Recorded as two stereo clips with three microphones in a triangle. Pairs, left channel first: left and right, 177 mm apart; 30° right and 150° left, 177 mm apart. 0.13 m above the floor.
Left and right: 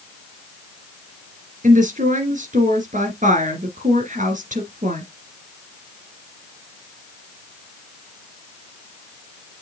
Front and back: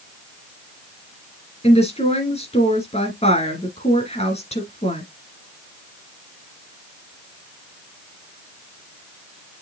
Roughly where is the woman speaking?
Right.